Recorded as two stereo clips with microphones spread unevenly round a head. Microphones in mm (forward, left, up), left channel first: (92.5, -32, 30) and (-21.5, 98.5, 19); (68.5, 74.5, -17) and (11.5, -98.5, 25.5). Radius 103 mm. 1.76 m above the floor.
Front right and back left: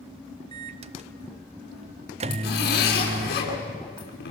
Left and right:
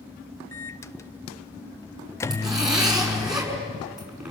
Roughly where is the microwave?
Behind.